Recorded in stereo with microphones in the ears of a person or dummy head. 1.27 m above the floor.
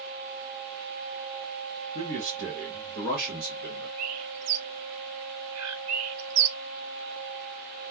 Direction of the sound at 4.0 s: 85° right.